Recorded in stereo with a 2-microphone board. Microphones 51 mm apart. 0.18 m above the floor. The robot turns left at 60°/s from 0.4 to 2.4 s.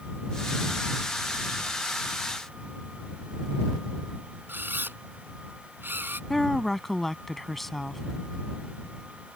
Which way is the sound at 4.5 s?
45° right (ahead or behind).